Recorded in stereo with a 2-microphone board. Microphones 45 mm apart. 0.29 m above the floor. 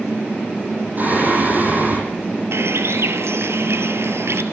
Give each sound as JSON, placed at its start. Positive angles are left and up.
{"t": 1.0, "sound": "singing", "side_deg": -40, "distance_m": 9.0}
{"t": 2.5, "sound": "a bird", "side_deg": -65, "distance_m": 2.0}